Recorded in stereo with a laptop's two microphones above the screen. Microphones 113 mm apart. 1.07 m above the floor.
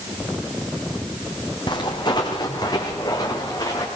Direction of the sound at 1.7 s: 40° left (ahead or behind).